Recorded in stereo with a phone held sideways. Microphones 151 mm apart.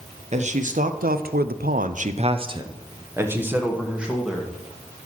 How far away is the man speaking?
About 1.0 m.